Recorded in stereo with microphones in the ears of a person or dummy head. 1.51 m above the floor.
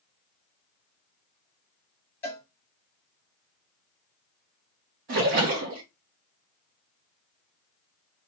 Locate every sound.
2.2 s a cowbell: 15° left (ahead or behind), 0.8 m
5.1 s a splash: 45° right (ahead or behind), 0.7 m